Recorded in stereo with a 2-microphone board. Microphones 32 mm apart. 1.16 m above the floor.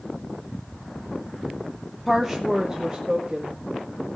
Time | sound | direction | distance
2.1 | a woman speaking | 5° left (ahead or behind) | 0.7 m